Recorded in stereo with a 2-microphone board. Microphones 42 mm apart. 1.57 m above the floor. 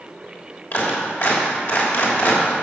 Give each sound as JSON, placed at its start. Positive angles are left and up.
{"t": 0.7, "sound": "a clap", "side_deg": 60, "distance_m": 3.0}